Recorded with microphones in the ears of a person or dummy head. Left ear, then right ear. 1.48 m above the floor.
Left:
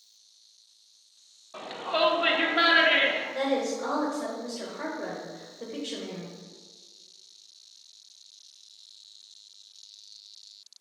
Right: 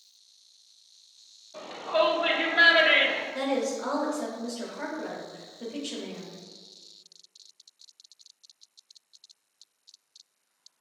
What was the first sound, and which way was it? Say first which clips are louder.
A shout: right 2 dB; 45° left (ahead or behind).